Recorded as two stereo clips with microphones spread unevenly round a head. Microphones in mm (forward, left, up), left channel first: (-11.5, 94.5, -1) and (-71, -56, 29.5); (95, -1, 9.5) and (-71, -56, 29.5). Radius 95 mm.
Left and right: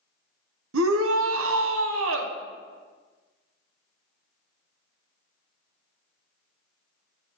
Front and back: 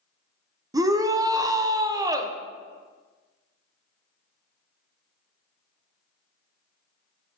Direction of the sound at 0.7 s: 90° right.